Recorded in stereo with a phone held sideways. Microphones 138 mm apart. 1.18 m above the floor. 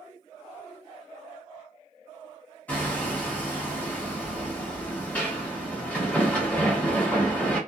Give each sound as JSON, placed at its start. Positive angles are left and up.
{"t": 2.7, "sound": "hammering", "side_deg": 10, "distance_m": 1.3}